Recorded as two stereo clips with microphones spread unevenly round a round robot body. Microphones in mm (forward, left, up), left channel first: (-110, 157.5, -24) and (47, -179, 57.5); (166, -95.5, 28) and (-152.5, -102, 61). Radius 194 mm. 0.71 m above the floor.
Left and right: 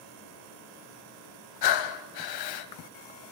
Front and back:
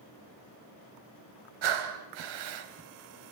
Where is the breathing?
145° left, 1.5 m.